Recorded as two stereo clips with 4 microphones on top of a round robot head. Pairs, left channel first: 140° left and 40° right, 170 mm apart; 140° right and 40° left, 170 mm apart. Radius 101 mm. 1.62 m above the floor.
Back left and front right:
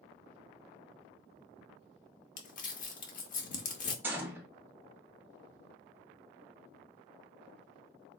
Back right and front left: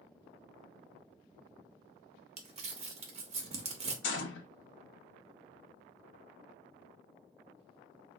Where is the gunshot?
120° right, 0.6 m.